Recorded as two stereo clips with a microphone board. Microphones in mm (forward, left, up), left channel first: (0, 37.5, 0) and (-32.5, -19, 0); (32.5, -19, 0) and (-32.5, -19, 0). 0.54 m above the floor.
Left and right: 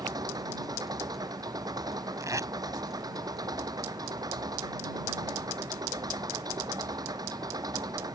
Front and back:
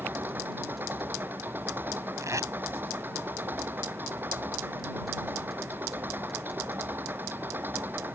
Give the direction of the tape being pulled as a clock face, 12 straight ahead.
5 o'clock.